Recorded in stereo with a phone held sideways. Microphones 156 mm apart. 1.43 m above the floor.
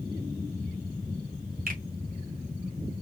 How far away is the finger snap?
About 1.5 m.